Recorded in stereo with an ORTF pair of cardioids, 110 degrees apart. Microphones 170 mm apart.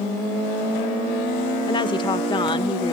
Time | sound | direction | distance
1.7 | a woman speaking | 25° left | ?